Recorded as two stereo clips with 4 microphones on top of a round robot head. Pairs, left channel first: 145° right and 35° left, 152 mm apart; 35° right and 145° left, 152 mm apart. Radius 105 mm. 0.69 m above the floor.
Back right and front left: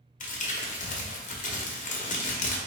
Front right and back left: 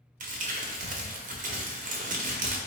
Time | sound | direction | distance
0.2 | crumpling | straight behind | 0.9 m